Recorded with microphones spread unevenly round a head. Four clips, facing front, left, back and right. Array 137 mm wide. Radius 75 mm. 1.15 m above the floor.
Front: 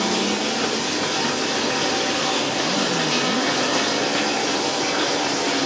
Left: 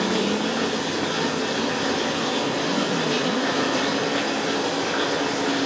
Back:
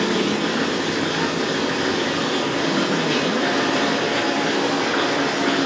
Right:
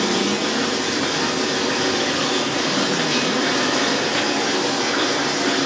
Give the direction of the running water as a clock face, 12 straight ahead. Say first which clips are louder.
Right 2 dB, back 2 dB; 5 o'clock.